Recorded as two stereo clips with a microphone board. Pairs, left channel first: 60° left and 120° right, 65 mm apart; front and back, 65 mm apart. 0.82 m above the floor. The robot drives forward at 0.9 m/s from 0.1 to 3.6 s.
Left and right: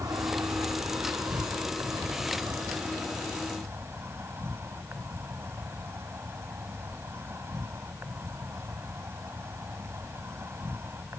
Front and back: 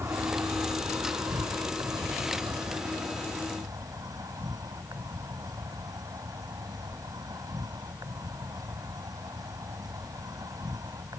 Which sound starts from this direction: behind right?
An insect, at 0.0 s.